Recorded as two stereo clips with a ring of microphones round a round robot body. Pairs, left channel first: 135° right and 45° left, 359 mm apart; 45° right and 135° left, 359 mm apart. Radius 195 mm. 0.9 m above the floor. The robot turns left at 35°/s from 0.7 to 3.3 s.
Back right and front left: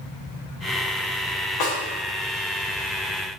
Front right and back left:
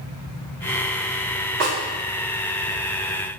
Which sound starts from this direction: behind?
A snare drum, at 1.6 s.